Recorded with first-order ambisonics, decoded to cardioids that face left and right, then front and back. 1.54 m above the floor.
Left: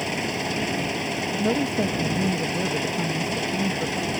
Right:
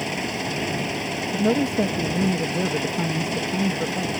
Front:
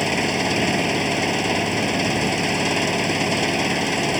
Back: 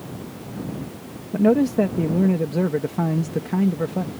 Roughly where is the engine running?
Ahead.